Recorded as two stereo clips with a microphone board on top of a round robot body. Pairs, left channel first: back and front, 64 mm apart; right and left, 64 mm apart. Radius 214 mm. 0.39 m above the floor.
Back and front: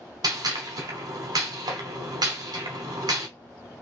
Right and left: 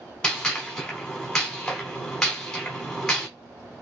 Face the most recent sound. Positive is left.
turn(degrees=-10)